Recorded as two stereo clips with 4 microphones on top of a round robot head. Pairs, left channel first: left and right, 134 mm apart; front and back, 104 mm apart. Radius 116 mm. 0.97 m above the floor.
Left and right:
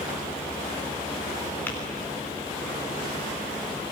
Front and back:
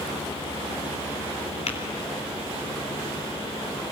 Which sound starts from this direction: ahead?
Tapping, at 1.7 s.